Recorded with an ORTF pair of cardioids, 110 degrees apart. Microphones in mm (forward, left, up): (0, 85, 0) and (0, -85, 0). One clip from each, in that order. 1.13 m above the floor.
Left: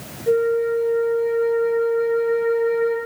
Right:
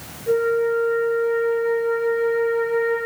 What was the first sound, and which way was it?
A flute, 30° left.